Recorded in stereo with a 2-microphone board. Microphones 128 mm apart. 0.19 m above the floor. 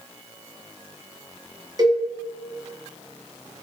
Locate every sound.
1.8 s a cowbell: 30° right (ahead or behind), 1.3 m